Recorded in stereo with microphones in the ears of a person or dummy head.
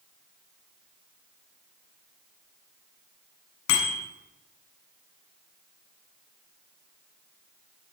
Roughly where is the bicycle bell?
Left.